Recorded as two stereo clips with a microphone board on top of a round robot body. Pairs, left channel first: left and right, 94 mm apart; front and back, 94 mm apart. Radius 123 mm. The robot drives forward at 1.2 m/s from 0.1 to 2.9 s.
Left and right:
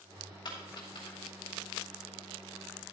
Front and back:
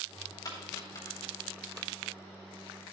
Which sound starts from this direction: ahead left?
A dropped coin, at 0.5 s.